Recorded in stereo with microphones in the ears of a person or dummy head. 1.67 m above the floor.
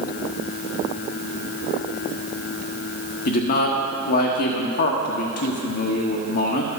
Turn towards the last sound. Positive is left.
turn(degrees=45)  # may be behind; listen again after turning